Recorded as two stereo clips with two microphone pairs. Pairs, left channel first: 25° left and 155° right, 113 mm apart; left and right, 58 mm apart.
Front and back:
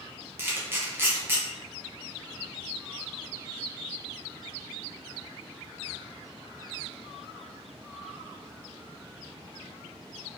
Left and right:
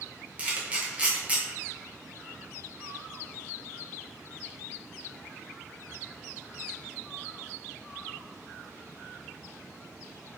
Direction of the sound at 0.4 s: 120° right.